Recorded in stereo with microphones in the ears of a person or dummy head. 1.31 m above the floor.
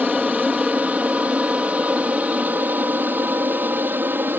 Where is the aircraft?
5° left (ahead or behind); by 4.4 s 5° right (ahead or behind).